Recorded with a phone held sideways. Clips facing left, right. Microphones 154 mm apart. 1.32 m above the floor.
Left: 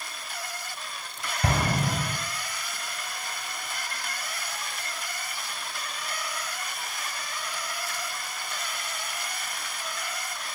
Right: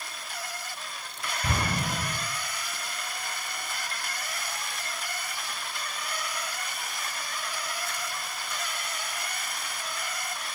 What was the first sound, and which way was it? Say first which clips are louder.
An explosion: left 4 dB; 80° left.